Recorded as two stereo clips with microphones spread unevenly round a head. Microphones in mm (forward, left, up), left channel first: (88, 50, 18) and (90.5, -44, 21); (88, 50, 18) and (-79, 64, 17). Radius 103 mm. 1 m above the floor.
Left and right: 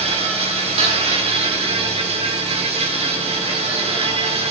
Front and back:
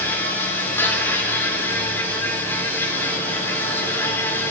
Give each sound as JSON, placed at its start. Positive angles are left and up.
{"t": 0.0, "sound": "an insect", "azimuth_deg": -85, "distance_m": 3.5}